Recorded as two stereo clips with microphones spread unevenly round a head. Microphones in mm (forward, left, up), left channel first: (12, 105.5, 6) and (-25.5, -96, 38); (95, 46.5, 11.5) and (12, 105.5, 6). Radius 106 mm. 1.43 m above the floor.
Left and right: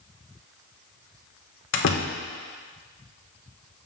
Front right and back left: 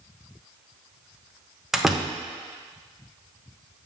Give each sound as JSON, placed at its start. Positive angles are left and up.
{"t": 1.7, "sound": "a door slam", "azimuth_deg": 55, "distance_m": 0.7}